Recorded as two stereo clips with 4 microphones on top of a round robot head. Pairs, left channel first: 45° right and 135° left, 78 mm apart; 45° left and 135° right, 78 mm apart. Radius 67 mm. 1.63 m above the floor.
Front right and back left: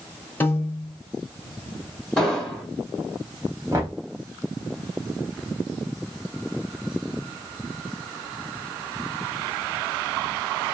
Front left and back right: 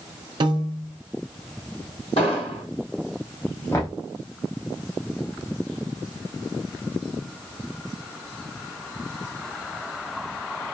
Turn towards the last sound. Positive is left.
turn(degrees=95)